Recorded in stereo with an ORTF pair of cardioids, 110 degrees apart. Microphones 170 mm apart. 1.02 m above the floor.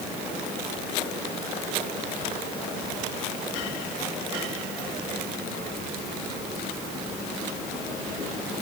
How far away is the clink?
I don't hear a clink.